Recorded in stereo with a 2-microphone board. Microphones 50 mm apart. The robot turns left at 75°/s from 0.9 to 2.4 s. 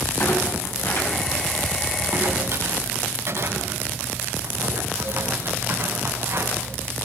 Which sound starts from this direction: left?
A clunk, at 0.2 s.